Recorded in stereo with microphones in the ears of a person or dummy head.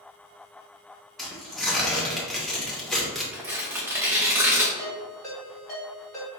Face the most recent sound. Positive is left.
turn(degrees=10)  # may be behind; listen again after turning